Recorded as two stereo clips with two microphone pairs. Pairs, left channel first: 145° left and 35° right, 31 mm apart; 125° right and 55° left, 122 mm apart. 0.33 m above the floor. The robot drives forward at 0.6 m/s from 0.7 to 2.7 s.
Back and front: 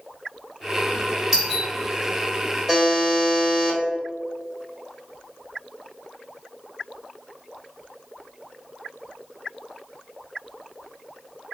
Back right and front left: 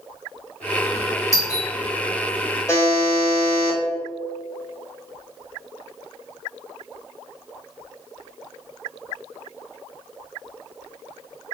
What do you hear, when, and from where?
1.3 s a doorbell: 95° right, 1.9 m; by 1.7 s 105° right, 1.9 m
2.7 s a buzzer: 105° right, 1.5 m